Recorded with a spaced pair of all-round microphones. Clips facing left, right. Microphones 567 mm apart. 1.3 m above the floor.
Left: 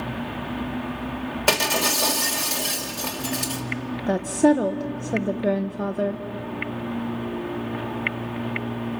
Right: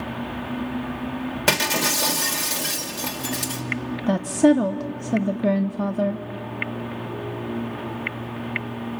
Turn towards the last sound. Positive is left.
turn(degrees=-30)  # may be behind; listen again after turning